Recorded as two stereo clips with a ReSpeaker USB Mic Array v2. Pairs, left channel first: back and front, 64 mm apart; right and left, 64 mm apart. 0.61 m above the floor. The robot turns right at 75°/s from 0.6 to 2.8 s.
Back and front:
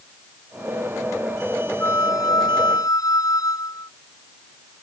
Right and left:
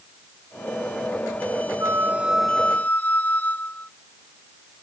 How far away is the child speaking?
I don't hear a child speaking.